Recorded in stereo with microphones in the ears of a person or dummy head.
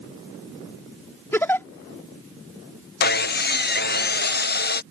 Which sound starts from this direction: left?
Sawing, at 3.0 s.